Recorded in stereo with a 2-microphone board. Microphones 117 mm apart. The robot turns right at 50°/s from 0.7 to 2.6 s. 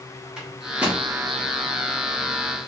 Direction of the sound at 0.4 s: 5° right (ahead or behind).